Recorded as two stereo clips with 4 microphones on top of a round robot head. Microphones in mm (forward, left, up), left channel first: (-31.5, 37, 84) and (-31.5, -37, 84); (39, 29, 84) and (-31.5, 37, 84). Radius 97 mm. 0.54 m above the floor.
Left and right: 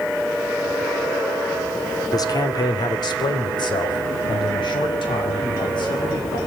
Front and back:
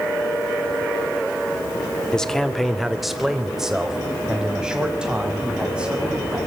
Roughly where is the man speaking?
Left.